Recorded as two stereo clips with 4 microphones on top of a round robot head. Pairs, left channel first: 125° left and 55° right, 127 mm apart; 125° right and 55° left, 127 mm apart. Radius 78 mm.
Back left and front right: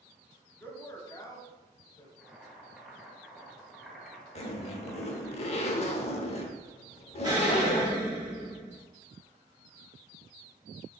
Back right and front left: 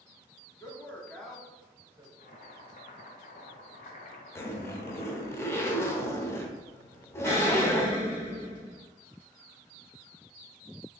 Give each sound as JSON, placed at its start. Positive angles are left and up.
{"t": 0.6, "sound": "a man speaking", "azimuth_deg": -175, "distance_m": 1.0}
{"t": 2.2, "sound": "boiling", "azimuth_deg": -145, "distance_m": 0.9}
{"t": 4.3, "sound": "a zipper", "azimuth_deg": 165, "distance_m": 0.6}
{"t": 7.2, "sound": "an explosion", "azimuth_deg": -70, "distance_m": 1.4}